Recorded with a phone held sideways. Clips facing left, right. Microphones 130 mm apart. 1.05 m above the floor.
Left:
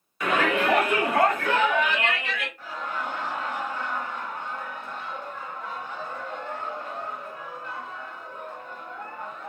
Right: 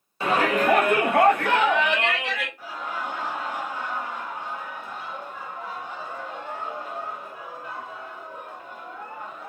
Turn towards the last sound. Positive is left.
turn(degrees=-10)  # may be behind; listen again after turning